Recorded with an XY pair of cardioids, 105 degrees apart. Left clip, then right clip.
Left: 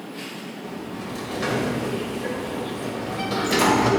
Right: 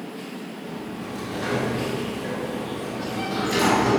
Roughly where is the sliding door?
Ahead left.